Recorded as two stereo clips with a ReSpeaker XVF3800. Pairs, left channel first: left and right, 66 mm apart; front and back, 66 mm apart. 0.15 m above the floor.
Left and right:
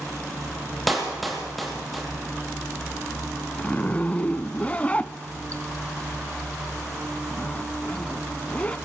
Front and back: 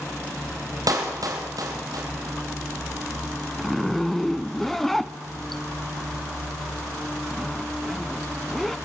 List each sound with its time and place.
0.9 s a clap: straight behind, 4.5 m
3.6 s a zipper: 80° left, 0.6 m